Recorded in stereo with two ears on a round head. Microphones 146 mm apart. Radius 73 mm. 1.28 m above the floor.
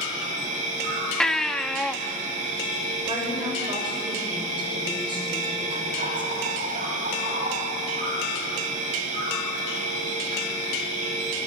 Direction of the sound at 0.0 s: 50° right (ahead or behind).